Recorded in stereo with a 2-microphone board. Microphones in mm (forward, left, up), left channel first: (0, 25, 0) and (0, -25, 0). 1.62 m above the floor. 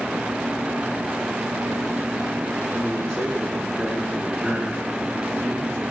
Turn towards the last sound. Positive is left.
turn(degrees=35)  # may be behind; listen again after turning